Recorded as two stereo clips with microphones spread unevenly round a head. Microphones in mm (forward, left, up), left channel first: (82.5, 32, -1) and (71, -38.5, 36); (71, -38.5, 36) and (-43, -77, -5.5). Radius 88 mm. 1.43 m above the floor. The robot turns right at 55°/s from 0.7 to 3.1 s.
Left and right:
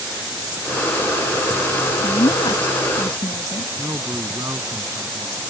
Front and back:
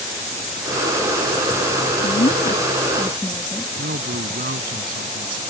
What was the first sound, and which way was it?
A woman speaking, 40° left.